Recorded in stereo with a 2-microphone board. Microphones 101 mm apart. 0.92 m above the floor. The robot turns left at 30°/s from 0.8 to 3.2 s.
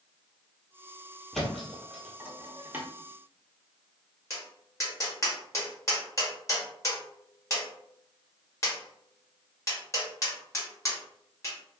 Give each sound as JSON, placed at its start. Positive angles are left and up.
{"t": 1.3, "sound": "a thud", "side_deg": 0, "distance_m": 1.0}
{"t": 4.3, "sound": "tapping", "side_deg": 30, "distance_m": 1.2}